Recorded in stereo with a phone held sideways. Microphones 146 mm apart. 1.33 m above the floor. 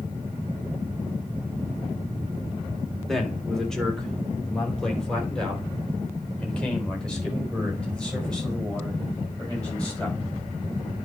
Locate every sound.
3.1 s a man speaking: centre (ahead or behind), 2 m; by 10.2 s 5° left (ahead or behind), 6.5 m